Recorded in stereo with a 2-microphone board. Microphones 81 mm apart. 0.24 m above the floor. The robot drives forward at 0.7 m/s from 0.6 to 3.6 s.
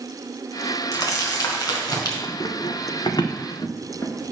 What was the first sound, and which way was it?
Crumpling, 40° left (ahead or behind).